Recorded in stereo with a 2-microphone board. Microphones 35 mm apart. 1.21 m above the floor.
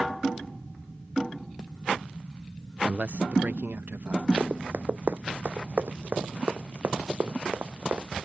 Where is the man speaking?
35° right (ahead or behind); by 4.3 s 75° right (ahead or behind).